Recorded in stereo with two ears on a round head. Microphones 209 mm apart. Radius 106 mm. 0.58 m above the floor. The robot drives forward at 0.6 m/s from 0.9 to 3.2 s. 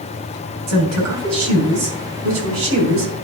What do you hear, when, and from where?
0.7 s a woman speaking: 80° right, 4.5 m; by 3.2 s 70° right (ahead or behind), 5 m